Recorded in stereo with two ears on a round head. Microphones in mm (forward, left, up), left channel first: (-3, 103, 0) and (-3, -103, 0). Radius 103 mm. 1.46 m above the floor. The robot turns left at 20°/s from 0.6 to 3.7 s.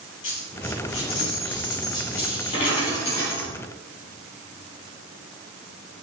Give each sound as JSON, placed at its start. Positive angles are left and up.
{"t": 0.2, "sound": "a dropped coin", "azimuth_deg": 65, "distance_m": 3.5}